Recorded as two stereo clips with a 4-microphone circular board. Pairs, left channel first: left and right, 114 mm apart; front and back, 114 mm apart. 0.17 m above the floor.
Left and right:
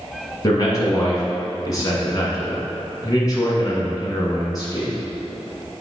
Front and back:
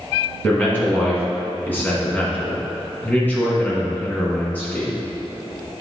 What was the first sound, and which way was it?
A man speaking, 65° left.